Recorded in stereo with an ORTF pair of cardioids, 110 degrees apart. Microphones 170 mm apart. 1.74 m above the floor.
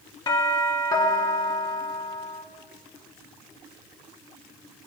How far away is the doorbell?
About 2.5 m.